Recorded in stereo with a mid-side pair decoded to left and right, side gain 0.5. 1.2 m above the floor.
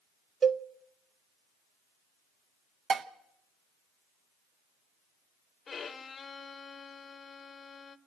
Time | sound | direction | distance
0.4 | a cowbell | 40° right | 0.7 m
2.9 | dishes clattering | 50° right | 1.1 m
5.7 | a violin | 35° left | 0.8 m